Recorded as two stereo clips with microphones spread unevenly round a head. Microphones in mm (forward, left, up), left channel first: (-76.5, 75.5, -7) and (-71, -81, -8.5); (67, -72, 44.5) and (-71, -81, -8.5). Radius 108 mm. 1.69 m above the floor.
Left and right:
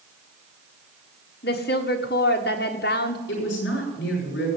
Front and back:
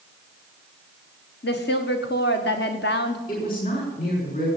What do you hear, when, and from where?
1.4 s a woman speaking: 45° left, 1.5 m
3.3 s a woman speaking: 55° left, 6 m